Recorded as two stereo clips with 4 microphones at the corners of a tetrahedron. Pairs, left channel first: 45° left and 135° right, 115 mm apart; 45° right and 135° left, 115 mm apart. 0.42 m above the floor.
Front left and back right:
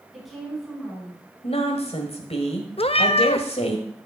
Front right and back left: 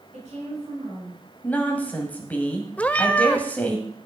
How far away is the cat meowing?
About 0.5 m.